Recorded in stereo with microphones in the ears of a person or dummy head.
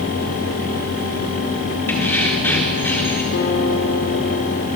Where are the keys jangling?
10° left (ahead or behind), 4 m.